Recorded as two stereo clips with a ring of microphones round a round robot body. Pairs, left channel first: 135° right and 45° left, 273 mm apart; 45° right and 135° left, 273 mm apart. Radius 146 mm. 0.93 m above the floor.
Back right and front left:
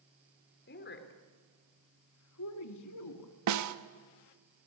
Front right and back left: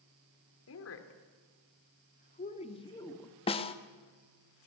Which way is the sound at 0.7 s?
80° right.